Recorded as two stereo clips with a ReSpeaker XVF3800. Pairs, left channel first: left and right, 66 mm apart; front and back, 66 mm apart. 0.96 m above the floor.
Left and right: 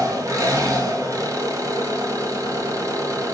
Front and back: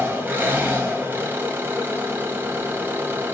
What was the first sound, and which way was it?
An engine running, 120° right.